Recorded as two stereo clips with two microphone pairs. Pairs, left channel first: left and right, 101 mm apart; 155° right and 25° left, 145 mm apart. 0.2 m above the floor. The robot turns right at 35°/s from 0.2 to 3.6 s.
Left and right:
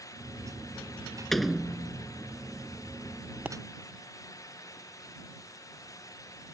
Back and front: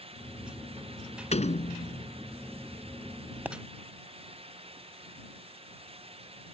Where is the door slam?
175° left; by 2.1 s 160° right.